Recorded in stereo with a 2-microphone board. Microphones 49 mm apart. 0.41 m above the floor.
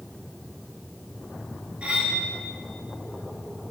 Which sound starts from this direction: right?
Cutlery clinking, at 1.8 s.